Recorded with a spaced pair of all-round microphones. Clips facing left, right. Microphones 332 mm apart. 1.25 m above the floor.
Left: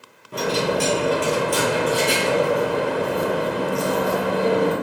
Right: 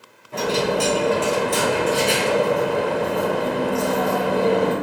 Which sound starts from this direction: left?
A dropped coin, at 0.3 s.